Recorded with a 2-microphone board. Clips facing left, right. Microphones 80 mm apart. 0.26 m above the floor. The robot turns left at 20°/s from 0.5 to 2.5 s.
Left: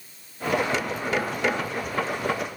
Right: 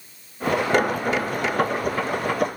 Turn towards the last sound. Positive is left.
No sound to turn to.